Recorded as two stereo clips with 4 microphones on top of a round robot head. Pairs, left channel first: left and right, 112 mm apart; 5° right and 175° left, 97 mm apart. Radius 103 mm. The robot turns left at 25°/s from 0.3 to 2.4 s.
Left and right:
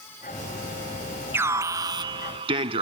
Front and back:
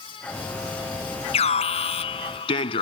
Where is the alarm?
15° right; by 2.8 s 45° right.